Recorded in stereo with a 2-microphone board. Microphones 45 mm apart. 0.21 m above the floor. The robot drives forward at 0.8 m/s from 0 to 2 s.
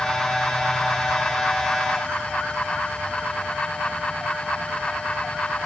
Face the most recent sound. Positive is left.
No sound to turn to.